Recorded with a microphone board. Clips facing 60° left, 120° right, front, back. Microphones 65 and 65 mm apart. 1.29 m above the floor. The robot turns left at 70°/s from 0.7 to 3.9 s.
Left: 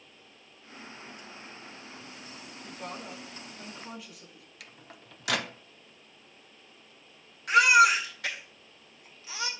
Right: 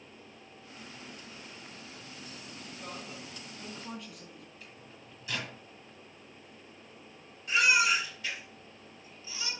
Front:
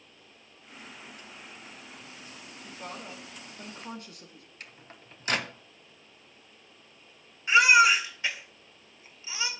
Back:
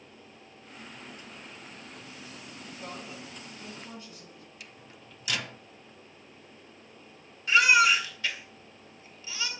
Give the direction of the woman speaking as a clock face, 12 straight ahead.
10 o'clock.